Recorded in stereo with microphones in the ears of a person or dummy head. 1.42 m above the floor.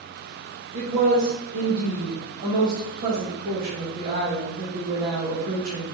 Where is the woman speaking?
45° right (ahead or behind), 1.3 m.